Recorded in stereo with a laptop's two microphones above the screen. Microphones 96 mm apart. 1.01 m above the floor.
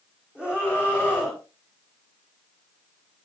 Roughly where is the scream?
Centre.